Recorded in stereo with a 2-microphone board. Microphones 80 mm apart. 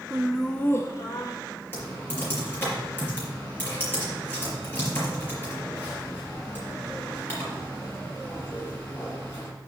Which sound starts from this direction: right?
Laughter, at 0.1 s.